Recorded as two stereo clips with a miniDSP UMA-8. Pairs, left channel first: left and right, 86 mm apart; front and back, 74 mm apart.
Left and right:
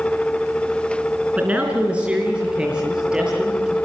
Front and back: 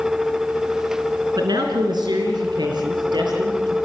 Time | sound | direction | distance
1.4 | a man speaking | 160° right | 3.5 m